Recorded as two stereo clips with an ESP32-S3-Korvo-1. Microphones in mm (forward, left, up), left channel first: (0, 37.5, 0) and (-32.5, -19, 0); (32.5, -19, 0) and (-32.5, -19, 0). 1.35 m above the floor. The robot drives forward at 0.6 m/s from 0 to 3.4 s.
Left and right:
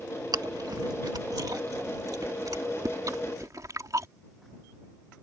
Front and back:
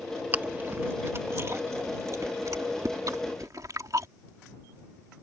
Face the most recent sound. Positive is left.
turn(degrees=-150)